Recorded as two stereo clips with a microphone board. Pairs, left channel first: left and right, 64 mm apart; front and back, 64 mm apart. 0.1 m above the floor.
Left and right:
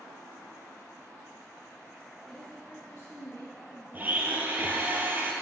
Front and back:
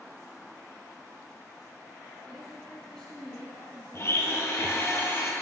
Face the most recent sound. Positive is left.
turn(degrees=-35)